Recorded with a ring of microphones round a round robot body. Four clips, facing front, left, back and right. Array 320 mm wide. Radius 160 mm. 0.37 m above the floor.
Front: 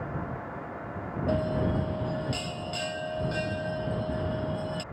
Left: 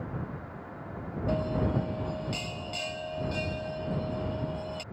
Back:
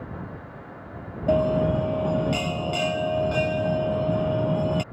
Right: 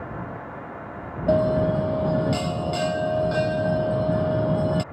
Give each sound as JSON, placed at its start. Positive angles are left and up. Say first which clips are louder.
{"t": 1.3, "sound": "a bell", "louder": "right 10 dB, back 8 dB", "azimuth_deg": -125}